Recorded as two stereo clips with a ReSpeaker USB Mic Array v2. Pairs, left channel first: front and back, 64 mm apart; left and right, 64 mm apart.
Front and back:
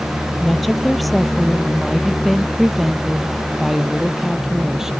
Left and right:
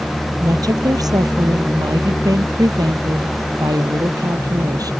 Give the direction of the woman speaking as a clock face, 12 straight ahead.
3 o'clock.